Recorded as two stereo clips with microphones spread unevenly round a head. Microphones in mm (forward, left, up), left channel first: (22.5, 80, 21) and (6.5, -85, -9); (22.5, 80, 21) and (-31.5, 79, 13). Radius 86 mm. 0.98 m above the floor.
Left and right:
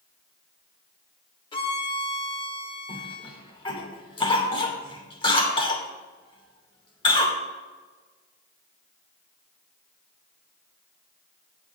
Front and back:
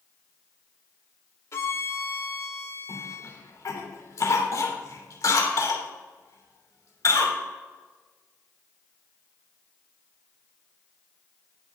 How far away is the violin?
About 1.2 m.